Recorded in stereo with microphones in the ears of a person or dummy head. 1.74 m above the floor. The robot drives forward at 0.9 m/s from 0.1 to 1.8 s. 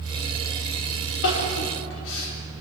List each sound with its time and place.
1.2 s crying: 65° left (ahead or behind), 4 m; by 2.6 s 70° left (ahead or behind), 4 m